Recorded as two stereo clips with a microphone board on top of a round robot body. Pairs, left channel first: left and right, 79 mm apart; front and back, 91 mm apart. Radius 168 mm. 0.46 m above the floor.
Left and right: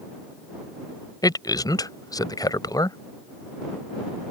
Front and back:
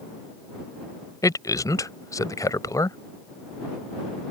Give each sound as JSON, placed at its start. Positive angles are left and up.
{"t": 1.2, "sound": "a man speaking", "azimuth_deg": 55}